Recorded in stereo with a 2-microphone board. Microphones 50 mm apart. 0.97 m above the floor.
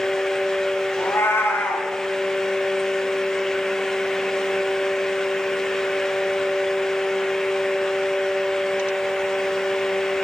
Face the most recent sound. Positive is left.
turn(degrees=60)  # may be behind; listen again after turning